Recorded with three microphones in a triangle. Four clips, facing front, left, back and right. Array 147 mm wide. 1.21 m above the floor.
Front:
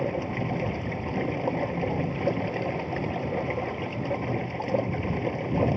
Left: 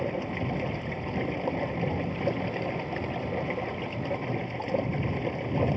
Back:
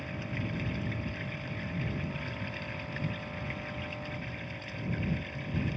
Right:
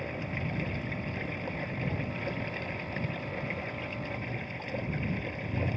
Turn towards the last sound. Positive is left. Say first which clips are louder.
# left 6 dB, front 10 dB
turn(degrees=30)